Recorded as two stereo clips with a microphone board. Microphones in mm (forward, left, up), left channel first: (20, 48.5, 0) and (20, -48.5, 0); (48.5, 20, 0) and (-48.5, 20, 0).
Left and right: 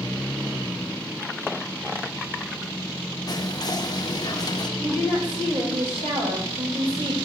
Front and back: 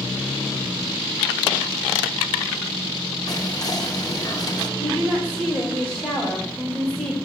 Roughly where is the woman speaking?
Right.